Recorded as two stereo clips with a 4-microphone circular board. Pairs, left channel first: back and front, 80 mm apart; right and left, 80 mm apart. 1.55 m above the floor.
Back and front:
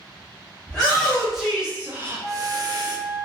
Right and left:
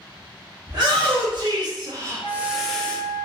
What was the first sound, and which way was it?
A shout, 100° left.